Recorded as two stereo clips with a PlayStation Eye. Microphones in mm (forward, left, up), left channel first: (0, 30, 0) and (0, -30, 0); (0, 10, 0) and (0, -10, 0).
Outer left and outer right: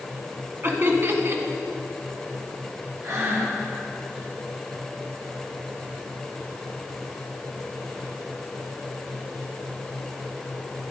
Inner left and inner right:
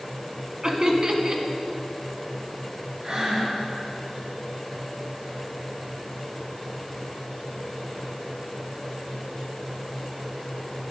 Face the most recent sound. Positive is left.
turn(degrees=-55)  # may be behind; listen again after turning